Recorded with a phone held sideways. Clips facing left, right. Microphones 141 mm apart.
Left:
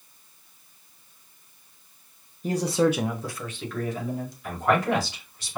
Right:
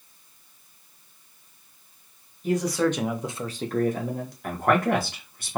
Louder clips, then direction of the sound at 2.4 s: Left 1 dB; 40° left (ahead or behind).